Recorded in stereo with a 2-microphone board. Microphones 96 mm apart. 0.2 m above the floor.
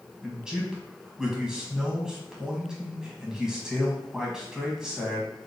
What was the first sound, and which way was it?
A man speaking, 10° right (ahead or behind).